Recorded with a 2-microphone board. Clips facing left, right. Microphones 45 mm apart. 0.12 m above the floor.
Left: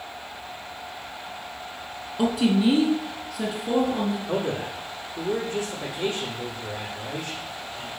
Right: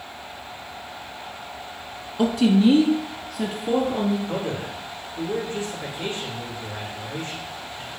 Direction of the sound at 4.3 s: 65° left (ahead or behind).